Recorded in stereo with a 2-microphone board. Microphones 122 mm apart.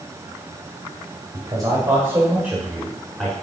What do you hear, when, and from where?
1.3 s a man speaking: 35° right (ahead or behind), 1.9 m; by 3.3 s 5° left (ahead or behind), 1.6 m